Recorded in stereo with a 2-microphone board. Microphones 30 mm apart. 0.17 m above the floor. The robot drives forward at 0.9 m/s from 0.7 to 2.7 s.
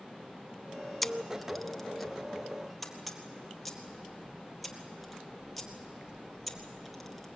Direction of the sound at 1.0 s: Centre (ahead or behind).